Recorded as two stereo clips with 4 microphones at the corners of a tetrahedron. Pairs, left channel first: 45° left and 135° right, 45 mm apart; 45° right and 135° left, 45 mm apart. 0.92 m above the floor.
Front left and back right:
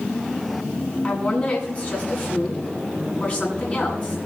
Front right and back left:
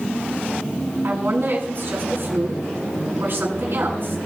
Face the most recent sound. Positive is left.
turn(degrees=100)